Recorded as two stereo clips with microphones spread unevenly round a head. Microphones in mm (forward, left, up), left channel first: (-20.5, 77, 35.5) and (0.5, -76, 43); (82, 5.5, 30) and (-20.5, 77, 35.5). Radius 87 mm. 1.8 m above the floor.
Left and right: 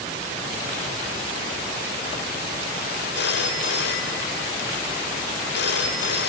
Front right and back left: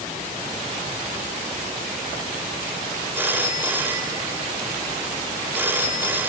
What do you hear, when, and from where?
3.1 s a phone ringing: 70° left, 2.5 m